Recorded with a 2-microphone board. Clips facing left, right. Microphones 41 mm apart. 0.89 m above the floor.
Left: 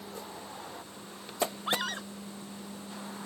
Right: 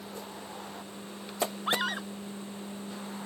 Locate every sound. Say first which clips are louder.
1.7 s a scream: right 2 dB; 10° right (ahead or behind)